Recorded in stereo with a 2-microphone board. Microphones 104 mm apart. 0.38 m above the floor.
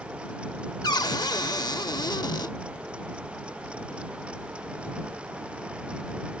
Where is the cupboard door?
45° left (ahead or behind).